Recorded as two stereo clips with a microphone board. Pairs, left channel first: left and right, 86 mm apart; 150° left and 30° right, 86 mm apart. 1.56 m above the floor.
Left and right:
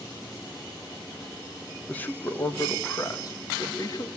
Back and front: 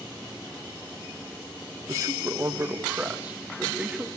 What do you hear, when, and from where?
1.9 s a man speaking: 20° left, 1.7 m; by 4.1 s 50° left, 3 m